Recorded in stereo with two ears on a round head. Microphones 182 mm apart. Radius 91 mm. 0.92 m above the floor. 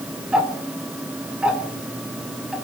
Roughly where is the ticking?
Centre.